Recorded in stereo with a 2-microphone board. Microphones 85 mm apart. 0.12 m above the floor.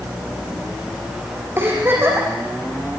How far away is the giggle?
About 6 m.